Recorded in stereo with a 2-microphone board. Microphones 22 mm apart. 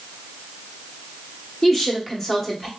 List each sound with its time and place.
1.6 s a woman speaking: 15° left (ahead or behind), 1.0 m